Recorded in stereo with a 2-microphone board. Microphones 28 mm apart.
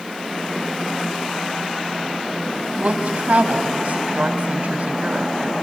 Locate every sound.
2.8 s a woman speaking: 60° right (ahead or behind), 3 m